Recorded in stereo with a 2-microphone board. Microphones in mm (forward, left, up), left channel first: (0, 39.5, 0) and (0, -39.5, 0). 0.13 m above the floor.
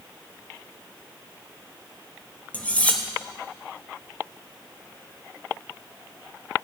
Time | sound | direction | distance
2.5 | cutlery clinking | 20° left (ahead or behind) | 1.8 m